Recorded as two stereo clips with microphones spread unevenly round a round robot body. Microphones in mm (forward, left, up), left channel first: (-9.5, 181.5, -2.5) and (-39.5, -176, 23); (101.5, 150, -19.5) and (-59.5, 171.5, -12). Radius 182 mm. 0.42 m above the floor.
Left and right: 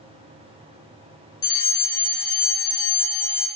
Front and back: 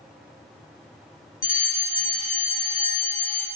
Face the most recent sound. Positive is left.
turn(degrees=10)